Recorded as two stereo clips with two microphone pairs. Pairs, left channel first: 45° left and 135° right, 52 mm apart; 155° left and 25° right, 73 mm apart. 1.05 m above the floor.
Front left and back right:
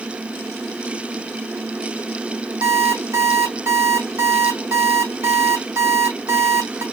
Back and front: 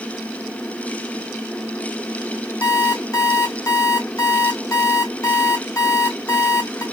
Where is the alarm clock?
160° right, 2.5 m.